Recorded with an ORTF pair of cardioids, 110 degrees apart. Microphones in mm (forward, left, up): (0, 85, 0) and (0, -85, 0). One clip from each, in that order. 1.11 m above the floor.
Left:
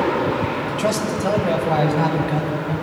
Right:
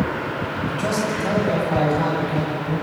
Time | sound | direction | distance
0.7 | a man speaking | 35° left | 6 m